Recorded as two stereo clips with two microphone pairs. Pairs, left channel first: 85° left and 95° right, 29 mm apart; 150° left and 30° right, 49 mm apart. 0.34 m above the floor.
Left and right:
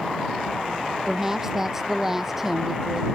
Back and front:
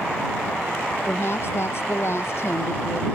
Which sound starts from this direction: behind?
A woman speaking, at 1.1 s.